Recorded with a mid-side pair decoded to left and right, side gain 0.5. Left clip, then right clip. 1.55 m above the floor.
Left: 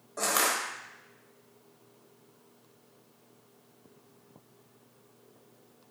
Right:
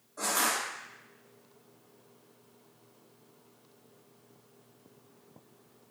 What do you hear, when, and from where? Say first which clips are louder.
0.2 s crushing: left 2 dB; 70° left, 0.8 m